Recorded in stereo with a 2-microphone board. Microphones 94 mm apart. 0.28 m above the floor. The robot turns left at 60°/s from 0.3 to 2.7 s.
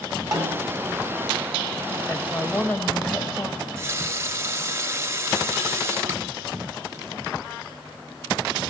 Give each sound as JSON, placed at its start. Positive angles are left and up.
{"t": 0.3, "sound": "a snare drum", "side_deg": -45, "distance_m": 3.0}
{"t": 2.1, "sound": "a woman speaking", "side_deg": 10, "distance_m": 1.1}
{"t": 3.6, "sound": "a running tap", "side_deg": -30, "distance_m": 0.8}